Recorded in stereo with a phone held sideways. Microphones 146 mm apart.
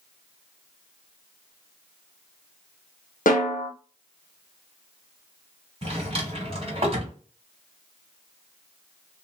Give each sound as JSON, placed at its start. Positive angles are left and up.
{"t": 3.3, "sound": "a snare drum", "side_deg": 75, "distance_m": 0.9}
{"t": 5.8, "sound": "a drawer", "side_deg": -40, "distance_m": 1.3}